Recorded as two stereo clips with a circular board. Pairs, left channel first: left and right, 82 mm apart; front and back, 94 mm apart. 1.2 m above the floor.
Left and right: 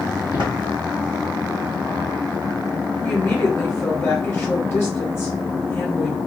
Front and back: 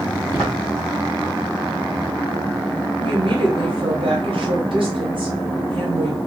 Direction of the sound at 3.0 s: 150° left.